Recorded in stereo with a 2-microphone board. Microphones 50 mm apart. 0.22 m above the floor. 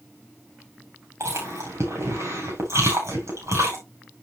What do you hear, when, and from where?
1.2 s chewing: 70° right (ahead or behind), 6 m